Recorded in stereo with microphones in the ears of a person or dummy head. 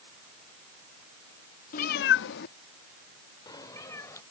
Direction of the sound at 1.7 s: 45° left (ahead or behind).